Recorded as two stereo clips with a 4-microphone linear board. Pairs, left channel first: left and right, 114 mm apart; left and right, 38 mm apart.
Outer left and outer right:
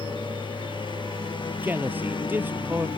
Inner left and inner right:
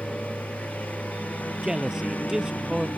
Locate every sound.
0.0 s a lawn mower: 45° left (ahead or behind)
1.6 s a man speaking: 15° right (ahead or behind)